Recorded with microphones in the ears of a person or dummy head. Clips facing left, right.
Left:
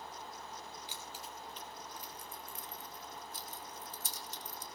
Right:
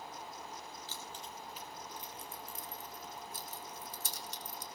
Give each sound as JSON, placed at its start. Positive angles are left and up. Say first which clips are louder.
{"t": 0.9, "sound": "keys jangling", "louder": "right 1 dB", "side_deg": 20, "distance_m": 1.0}